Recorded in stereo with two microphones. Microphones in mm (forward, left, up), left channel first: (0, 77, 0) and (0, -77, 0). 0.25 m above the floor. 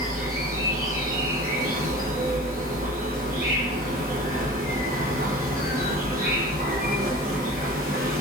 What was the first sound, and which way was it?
An insect, 60° right (ahead or behind).